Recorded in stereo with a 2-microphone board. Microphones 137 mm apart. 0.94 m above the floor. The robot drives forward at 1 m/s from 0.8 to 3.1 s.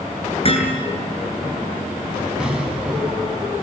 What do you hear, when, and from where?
0.5 s hammering: 40° left (ahead or behind), 8.5 m
2.4 s an explosion: 5° right (ahead or behind), 5.5 m